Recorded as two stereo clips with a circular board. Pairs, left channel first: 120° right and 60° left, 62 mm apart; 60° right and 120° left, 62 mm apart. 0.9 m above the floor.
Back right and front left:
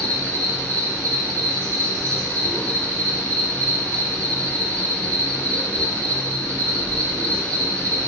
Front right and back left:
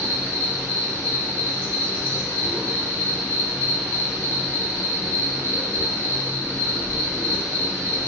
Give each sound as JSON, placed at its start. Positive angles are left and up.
{"t": 0.0, "sound": "an insect", "azimuth_deg": -175, "distance_m": 1.4}